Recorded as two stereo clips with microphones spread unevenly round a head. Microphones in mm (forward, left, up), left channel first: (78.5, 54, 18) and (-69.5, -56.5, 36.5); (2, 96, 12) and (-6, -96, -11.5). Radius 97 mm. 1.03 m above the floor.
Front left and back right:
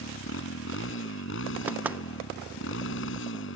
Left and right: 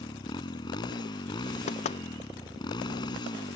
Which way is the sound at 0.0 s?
20° left.